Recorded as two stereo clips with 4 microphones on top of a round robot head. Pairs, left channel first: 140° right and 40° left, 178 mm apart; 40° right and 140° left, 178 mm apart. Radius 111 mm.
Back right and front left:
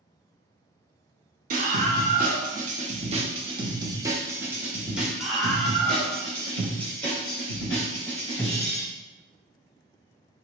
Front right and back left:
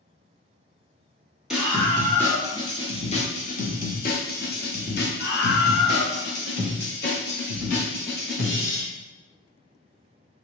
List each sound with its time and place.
1.5 s a scream: 55° left, 1.3 m; by 8.8 s 65° right, 3.5 m